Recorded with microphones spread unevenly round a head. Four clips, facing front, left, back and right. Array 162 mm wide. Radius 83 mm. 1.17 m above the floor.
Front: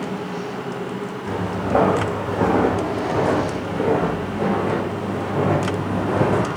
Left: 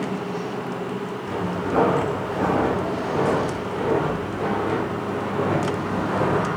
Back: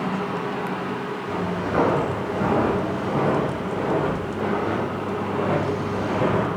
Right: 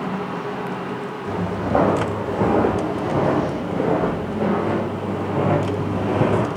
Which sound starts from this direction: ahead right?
Footsteps, at 1.3 s.